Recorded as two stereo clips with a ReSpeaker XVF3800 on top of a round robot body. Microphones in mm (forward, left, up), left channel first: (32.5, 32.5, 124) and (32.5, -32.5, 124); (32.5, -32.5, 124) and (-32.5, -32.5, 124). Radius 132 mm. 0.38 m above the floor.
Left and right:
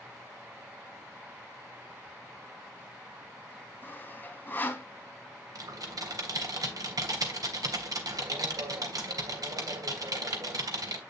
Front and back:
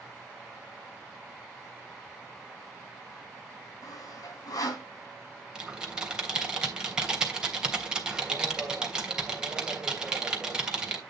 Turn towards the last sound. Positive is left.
turn(degrees=-100)